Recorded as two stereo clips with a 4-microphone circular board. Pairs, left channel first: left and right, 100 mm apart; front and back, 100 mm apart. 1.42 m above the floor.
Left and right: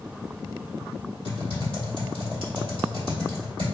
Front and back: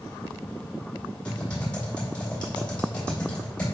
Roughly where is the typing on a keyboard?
Right.